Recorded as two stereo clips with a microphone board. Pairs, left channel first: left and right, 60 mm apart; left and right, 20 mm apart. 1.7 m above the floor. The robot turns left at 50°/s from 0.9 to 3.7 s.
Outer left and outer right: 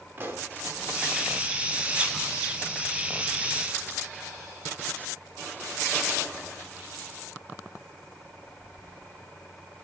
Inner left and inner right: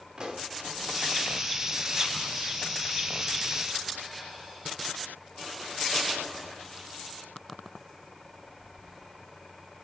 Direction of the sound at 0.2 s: 30° right (ahead or behind).